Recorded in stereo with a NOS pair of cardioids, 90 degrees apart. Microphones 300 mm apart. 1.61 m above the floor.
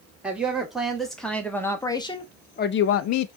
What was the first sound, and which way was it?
A woman speaking, 5° right.